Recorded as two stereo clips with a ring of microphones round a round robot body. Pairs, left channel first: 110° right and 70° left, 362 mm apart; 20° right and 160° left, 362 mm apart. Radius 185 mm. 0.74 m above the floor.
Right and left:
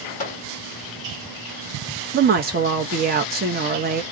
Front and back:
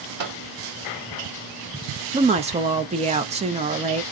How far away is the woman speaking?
About 0.6 m.